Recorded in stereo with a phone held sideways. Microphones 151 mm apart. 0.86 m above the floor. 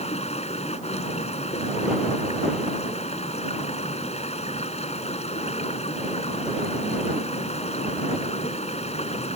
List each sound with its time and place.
0.0 s running water: 45° left (ahead or behind)